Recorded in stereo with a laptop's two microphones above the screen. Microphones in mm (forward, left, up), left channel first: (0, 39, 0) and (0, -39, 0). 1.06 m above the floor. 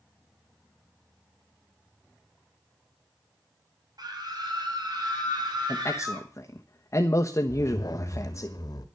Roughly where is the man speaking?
Left.